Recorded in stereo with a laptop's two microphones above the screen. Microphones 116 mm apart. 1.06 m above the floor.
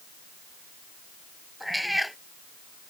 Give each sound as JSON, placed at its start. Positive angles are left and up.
{"t": 1.6, "sound": "a cat meowing", "side_deg": 0}